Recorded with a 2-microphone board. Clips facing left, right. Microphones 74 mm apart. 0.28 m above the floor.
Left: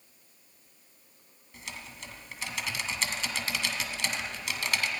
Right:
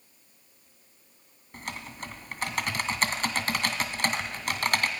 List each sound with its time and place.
1.5 s typing on a keyboard: 50° right (ahead or behind), 2 m